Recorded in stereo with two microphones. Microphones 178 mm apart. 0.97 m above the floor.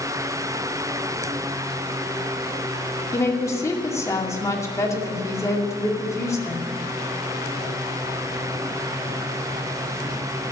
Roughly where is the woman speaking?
Centre.